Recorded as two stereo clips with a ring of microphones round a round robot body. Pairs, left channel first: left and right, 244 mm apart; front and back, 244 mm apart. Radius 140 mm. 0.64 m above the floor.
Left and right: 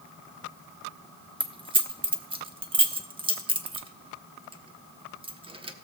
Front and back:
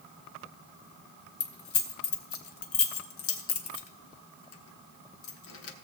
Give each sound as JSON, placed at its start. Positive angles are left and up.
{"t": 1.4, "sound": "keys jangling", "azimuth_deg": -20, "distance_m": 0.9}